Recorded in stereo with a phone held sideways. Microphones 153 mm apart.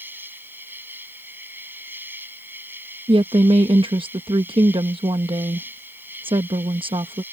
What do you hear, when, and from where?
0.0 s an insect: 15° right (ahead or behind)
3.1 s a woman speaking: 35° right (ahead or behind)